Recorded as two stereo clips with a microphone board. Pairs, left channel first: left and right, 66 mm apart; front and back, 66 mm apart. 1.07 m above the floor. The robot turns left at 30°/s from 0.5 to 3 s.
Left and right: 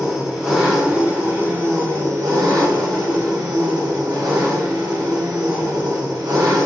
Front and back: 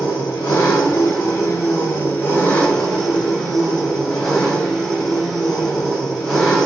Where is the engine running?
10° right, 1.1 m; by 6.7 s 85° right, 1.1 m.